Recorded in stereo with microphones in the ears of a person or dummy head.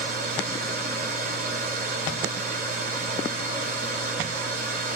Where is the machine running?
45° right (ahead or behind), 1.2 m.